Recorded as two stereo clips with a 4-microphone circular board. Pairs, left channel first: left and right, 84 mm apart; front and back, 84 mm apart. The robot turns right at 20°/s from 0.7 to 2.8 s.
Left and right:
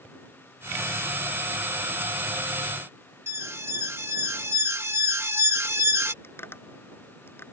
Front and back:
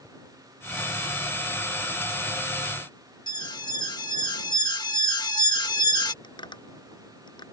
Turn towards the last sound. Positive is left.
turn(degrees=25)